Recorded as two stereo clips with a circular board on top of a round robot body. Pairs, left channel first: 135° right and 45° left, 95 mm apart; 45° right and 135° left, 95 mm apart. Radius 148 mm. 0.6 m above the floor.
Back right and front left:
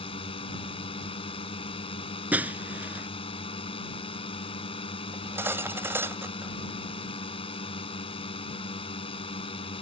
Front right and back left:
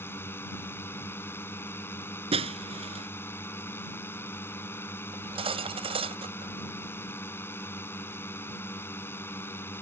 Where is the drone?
110° right.